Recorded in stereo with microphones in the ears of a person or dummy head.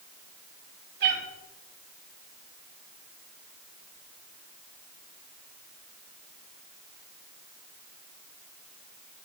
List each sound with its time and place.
1.0 s a cat meowing: 55° right (ahead or behind), 3.5 m